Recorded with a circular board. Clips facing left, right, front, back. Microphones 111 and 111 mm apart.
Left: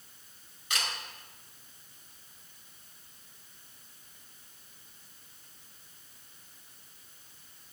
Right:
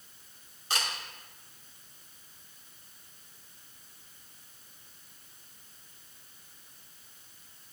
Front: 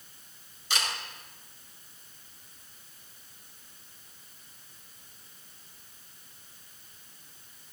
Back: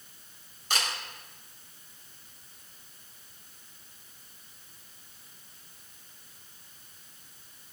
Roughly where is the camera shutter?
Behind right.